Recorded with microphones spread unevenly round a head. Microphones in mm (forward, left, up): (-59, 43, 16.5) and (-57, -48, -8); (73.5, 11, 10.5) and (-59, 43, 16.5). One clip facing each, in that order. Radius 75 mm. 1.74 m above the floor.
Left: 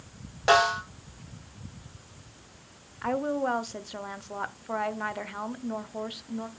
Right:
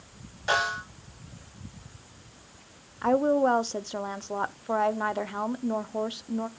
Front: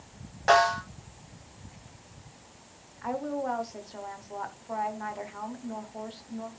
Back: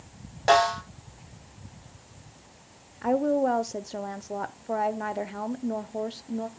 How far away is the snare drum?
About 3.5 m.